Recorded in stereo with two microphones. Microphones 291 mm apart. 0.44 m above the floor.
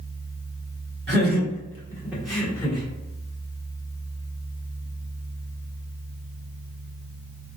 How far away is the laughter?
About 1.6 m.